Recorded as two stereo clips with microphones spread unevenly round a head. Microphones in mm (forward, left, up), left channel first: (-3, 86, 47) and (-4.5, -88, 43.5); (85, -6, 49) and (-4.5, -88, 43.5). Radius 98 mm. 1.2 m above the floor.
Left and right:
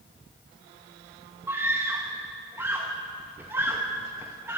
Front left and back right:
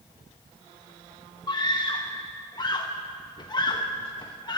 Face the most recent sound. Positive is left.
turn(degrees=-15)